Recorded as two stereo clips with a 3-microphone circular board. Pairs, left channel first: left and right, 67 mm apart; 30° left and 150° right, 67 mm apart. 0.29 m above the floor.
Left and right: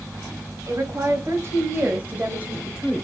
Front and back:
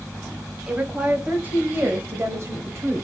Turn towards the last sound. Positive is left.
turn(degrees=-170)